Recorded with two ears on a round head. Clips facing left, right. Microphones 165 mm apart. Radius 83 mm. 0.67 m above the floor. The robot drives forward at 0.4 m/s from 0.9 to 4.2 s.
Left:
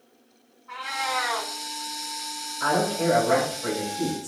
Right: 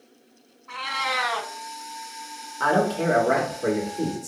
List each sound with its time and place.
0.7 s a cat meowing: 50° right (ahead or behind), 0.7 m; by 1.5 s 45° right (ahead or behind), 0.8 m
2.6 s a man speaking: 60° right (ahead or behind), 0.9 m; by 4.3 s 45° right (ahead or behind), 1.0 m